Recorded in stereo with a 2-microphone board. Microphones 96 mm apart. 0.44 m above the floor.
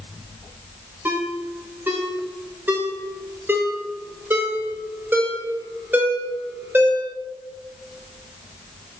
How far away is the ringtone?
About 0.9 m.